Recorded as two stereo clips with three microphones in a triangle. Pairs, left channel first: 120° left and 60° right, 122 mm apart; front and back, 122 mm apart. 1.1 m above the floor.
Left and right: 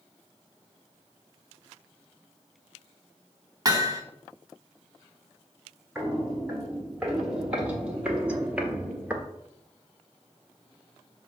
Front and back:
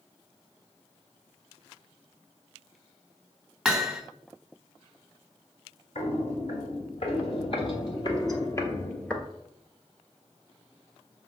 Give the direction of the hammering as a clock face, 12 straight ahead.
3 o'clock.